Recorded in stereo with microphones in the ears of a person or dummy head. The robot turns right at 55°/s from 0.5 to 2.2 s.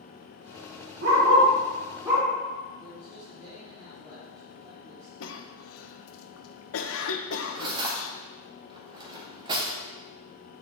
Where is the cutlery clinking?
25° right (ahead or behind), 1.5 m.